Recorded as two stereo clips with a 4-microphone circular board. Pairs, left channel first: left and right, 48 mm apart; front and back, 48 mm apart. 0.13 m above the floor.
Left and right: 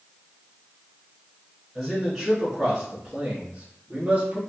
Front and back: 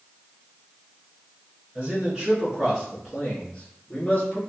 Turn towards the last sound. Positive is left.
turn(degrees=-35)